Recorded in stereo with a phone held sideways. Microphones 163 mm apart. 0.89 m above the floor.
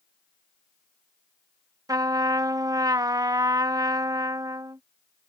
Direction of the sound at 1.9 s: 20° right (ahead or behind).